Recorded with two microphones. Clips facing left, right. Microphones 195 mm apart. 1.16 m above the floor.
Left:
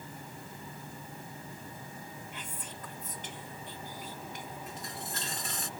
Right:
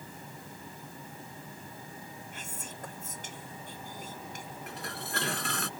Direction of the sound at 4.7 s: 70° right (ahead or behind).